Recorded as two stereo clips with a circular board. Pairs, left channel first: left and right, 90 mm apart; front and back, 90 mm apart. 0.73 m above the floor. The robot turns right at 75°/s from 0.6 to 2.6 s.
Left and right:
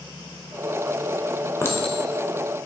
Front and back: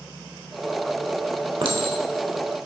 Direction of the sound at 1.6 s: 150° left.